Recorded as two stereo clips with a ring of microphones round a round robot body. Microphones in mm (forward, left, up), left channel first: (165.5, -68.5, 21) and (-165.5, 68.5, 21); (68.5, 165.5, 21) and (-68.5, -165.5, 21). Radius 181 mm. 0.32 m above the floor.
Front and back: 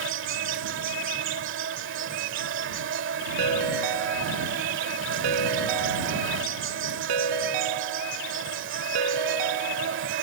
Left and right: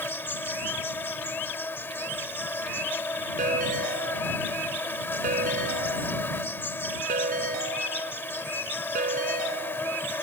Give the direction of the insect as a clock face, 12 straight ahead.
7 o'clock.